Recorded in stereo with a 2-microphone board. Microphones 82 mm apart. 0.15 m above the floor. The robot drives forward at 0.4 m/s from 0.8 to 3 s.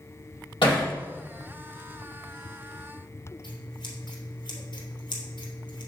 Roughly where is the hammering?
Left.